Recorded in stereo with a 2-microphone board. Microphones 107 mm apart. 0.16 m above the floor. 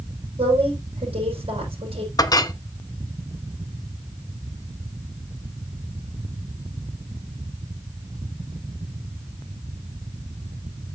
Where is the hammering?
No hammering in this recording.